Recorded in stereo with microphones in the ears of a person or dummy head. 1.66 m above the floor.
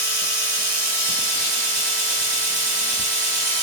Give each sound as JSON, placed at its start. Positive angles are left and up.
{"t": 0.0, "sound": "a machine running", "side_deg": -50, "distance_m": 2.0}